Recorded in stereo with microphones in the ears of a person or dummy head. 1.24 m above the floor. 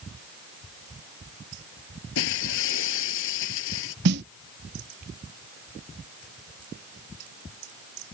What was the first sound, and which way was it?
Breaking glass, 70° left (ahead or behind).